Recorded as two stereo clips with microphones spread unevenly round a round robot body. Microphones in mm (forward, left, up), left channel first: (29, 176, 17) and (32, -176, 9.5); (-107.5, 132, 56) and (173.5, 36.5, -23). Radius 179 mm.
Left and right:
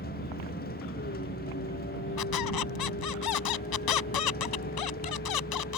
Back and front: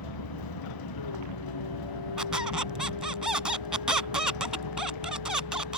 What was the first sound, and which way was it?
A vehicle, 160° left.